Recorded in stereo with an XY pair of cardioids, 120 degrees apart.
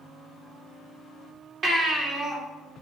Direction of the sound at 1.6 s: 45° right.